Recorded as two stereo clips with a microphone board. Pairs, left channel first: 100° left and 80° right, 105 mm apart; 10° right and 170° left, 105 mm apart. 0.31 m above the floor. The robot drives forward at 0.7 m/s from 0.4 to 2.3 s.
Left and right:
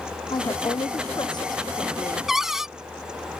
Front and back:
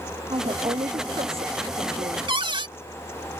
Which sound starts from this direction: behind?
A cupboard door, at 2.3 s.